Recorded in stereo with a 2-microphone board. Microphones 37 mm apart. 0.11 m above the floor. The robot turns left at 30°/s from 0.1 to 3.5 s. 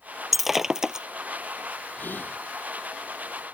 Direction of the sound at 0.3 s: Centre (ahead or behind).